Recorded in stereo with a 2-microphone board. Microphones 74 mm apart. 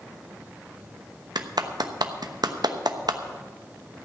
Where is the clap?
75° right (ahead or behind), 0.9 m.